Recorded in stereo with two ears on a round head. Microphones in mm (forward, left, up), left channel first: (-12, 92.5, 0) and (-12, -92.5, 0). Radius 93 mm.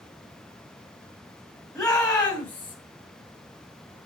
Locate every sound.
1.8 s a shout: 5° left (ahead or behind), 3.5 m; by 2.8 s 10° left (ahead or behind), 3 m